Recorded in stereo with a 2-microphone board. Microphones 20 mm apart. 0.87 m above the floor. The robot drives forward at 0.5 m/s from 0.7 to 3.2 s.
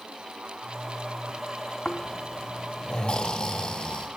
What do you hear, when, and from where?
1.9 s snoring: 55° left (ahead or behind), 0.6 m; by 4.1 s 45° left (ahead or behind), 0.7 m